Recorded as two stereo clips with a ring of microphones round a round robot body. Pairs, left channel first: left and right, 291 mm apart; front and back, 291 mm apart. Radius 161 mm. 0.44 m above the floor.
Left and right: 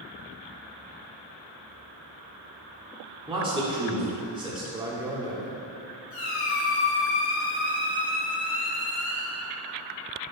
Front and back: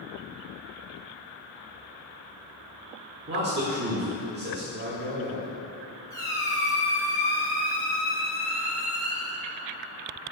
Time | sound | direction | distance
3.3 | a man speaking | 155° right | 1.3 m
4.7 | a man speaking | 155° right | 1.1 m
6.1 | a squeak | 80° left | 2 m